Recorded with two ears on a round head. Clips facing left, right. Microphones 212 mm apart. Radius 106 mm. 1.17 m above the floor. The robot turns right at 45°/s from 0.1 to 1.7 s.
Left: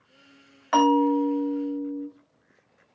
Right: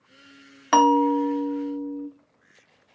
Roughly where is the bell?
Ahead right.